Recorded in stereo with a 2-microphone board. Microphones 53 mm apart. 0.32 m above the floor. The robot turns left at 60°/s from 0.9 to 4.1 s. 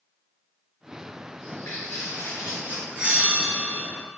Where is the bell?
20° right, 1.7 m; by 3.9 s 75° right, 1.7 m.